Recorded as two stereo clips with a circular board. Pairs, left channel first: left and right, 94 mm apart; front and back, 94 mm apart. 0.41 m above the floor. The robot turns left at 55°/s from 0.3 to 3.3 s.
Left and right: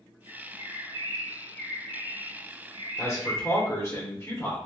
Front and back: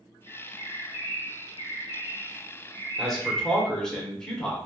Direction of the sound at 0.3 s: 85° left.